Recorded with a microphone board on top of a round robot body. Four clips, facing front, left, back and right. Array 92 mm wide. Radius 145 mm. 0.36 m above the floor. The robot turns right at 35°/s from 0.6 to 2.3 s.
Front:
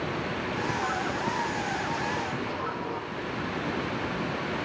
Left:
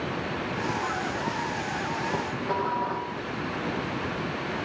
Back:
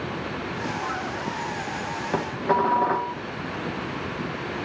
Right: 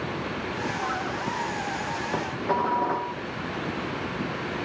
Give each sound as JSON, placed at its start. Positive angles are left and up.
{"t": 2.1, "sound": "dishes clattering", "azimuth_deg": -170, "distance_m": 2.5}